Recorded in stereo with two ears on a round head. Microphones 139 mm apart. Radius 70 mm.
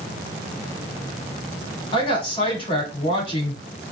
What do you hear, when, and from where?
1.9 s a woman speaking: 35° left (ahead or behind), 6 m